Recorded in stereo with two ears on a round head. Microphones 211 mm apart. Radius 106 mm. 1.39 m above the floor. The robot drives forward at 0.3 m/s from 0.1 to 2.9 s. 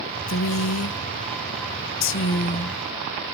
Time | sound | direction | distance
0.3 | a woman speaking | 55° left (ahead or behind) | 0.6 m